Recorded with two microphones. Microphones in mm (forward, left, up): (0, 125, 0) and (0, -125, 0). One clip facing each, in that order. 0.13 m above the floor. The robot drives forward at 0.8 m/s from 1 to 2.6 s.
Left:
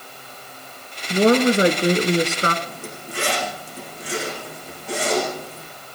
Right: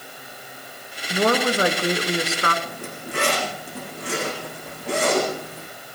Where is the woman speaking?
25° left (ahead or behind), 2 m; by 2.5 s 35° left (ahead or behind), 1.8 m.